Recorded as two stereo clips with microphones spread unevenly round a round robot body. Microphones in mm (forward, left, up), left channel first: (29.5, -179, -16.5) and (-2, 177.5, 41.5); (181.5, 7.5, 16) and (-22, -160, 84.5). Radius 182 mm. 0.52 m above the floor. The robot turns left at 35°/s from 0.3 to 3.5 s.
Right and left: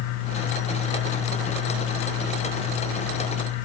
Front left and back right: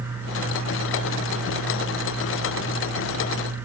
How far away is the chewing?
No chewing in this recording.